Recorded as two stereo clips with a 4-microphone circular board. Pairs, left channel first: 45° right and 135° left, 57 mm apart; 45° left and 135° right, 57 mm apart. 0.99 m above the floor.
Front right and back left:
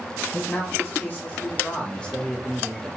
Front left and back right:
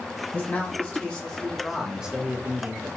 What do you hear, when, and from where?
0.3 s a man speaking: 10° right, 1.5 m; by 2.9 s 135° right, 1.0 m